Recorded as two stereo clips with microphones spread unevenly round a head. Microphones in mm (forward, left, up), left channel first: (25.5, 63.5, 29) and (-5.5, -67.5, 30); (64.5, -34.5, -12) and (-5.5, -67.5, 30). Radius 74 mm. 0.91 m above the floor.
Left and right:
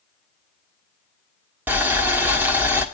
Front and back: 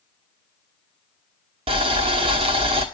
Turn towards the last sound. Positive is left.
turn(degrees=180)